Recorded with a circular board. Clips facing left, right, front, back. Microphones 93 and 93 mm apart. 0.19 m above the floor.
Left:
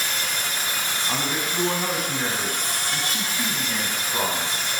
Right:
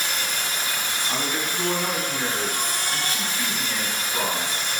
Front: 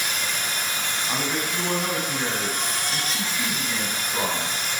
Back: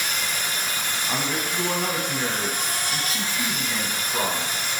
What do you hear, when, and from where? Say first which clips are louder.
0.0 s an insect: even, even; 100° right, 2.5 m
1.1 s a man speaking: even, even; 90° left, 1.2 m